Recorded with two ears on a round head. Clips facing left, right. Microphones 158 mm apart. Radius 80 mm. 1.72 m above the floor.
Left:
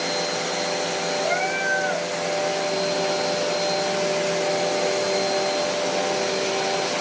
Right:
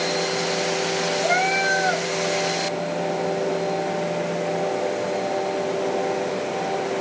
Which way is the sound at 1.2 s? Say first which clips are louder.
Right 3 dB; 45° right (ahead or behind).